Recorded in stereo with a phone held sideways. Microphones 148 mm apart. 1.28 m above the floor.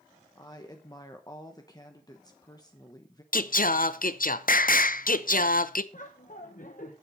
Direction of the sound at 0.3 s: 25° left (ahead or behind).